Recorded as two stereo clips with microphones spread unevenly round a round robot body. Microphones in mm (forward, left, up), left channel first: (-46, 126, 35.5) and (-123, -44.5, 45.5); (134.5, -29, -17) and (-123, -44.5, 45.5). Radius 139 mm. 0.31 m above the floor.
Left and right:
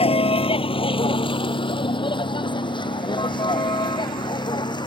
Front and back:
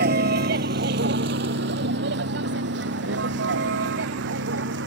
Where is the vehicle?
125° left; by 4.9 s 130° left.